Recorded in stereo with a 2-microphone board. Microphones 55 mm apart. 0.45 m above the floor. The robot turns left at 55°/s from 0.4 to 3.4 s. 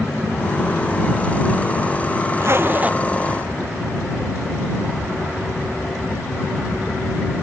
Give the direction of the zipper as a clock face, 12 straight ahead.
4 o'clock.